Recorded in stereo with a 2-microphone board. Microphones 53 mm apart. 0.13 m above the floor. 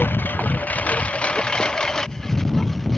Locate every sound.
0.0 s a lawn mower: 45° left (ahead or behind); by 3.0 s 5° left (ahead or behind)